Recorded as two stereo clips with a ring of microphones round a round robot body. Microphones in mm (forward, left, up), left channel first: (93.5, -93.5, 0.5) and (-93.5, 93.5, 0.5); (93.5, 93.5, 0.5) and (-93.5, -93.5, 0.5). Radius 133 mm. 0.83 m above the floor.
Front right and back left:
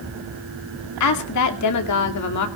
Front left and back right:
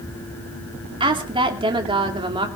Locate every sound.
1.0 s a woman speaking: 65° right, 2.5 m